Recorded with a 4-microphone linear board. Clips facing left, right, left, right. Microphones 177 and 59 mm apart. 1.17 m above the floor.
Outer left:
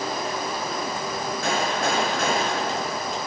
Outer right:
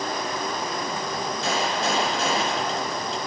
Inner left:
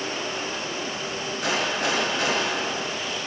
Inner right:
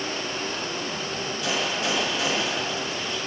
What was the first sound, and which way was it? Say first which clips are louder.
A gunshot: outer left 1 dB, inner left 2 dB; 60° left (ahead or behind).